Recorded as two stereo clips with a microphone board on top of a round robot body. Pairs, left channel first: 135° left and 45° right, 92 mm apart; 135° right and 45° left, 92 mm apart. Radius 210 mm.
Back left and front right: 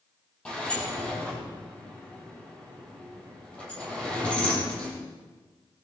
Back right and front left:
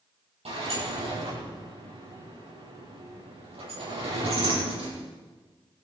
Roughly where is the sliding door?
Ahead left.